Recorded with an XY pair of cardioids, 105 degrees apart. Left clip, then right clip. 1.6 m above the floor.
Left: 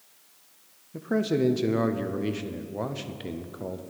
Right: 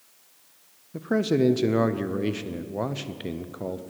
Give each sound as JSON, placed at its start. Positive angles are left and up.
{"t": 0.9, "sound": "a man speaking", "azimuth_deg": -20, "distance_m": 0.6}